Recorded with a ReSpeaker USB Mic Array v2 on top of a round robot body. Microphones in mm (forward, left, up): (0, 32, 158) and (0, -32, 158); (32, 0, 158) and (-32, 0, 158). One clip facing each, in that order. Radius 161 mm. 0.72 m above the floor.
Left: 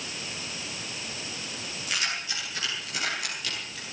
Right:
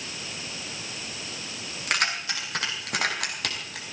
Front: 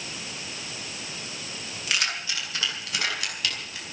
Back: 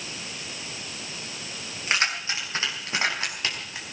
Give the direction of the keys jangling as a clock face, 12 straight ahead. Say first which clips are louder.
Right 5 dB, back 3 dB; 4 o'clock.